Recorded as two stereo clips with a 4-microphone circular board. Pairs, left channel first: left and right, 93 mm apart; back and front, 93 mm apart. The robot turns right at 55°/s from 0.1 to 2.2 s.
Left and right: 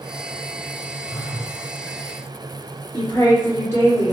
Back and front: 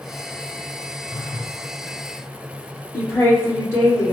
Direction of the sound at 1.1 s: 155° right.